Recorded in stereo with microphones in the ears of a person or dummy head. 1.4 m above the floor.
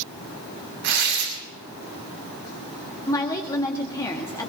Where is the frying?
No frying in this recording.